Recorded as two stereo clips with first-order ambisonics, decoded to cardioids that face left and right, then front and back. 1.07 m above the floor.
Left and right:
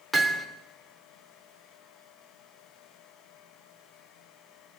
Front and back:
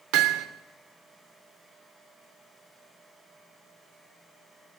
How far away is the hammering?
About 2.5 m.